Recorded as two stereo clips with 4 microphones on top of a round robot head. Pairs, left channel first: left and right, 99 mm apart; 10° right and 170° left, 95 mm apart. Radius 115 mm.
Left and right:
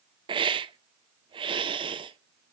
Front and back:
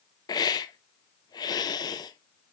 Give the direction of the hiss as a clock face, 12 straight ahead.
2 o'clock.